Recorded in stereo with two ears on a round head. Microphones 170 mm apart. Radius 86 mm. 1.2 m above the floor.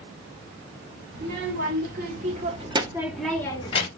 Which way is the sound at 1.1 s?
60° right (ahead or behind).